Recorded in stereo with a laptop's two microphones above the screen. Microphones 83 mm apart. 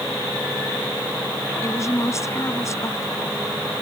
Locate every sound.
1.6 s a woman speaking: 35° left (ahead or behind)